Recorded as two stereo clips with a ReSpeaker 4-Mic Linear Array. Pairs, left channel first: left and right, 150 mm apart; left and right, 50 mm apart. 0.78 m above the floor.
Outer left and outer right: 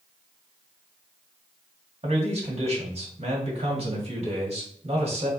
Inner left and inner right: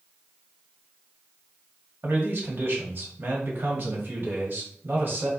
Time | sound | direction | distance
2.0 | a man speaking | 40° right (ahead or behind) | 1.8 m